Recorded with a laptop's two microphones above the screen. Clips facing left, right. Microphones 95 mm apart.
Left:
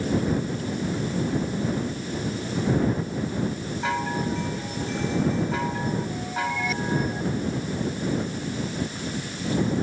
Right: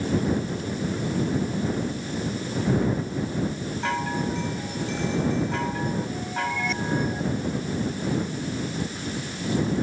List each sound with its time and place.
3.8 s a chime: 5° left (ahead or behind)